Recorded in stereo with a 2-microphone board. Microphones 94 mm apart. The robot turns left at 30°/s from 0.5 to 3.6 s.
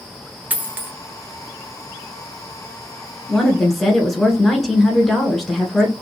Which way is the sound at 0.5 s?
15° right (ahead or behind).